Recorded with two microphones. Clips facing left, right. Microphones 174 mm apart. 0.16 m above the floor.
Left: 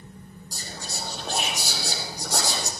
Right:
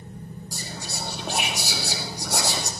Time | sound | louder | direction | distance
0.5 | whispering | right 1 dB | 10° right (ahead or behind) | 2.5 m